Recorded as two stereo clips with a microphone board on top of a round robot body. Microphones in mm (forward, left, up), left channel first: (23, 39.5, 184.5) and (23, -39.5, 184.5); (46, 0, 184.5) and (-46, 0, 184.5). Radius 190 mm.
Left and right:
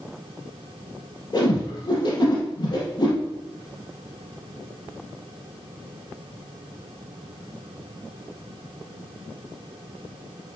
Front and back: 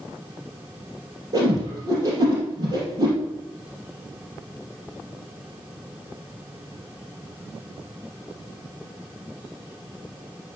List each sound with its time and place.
1.3 s a whoosh: 125° left, 3.5 m